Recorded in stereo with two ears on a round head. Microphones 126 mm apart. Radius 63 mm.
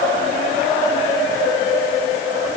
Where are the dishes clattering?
No dishes clattering in this recording.